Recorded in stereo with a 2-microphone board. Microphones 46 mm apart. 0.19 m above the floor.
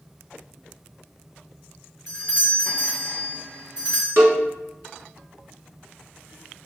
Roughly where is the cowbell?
Right.